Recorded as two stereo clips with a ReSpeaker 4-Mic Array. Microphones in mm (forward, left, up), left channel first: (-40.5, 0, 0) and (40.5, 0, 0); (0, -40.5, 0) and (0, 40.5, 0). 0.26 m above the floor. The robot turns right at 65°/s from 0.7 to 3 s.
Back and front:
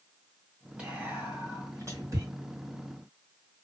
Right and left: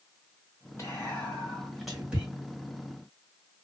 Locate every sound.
0.8 s whispering: 65° right, 1.9 m; by 2.2 s 30° left, 1.9 m